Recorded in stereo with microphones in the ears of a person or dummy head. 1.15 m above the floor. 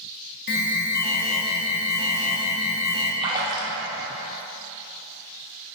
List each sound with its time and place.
0.5 s an alarm: 55° left (ahead or behind), 0.9 m
3.2 s a splash: 25° right (ahead or behind), 0.9 m